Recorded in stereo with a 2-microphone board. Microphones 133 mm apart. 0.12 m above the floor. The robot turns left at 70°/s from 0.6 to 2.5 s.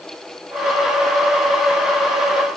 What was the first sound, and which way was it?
Only background noise.